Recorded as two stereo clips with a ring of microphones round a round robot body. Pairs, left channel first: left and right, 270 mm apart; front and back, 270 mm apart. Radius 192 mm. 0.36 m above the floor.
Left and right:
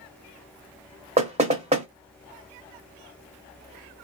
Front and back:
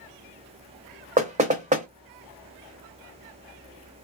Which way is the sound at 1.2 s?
135° right.